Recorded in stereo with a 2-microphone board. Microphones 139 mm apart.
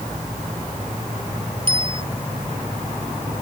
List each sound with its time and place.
1.7 s a bicycle bell: 40° right (ahead or behind)